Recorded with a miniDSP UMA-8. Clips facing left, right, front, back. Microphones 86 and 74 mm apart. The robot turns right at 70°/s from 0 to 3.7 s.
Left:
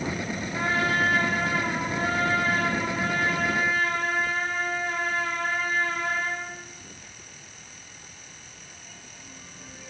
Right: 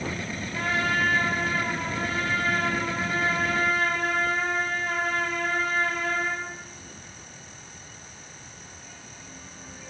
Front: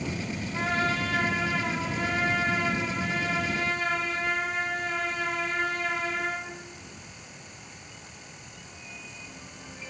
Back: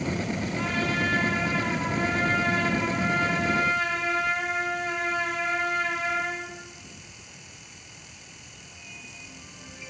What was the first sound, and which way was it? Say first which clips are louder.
A trumpet: left 1 dB, front 2 dB; 25° left.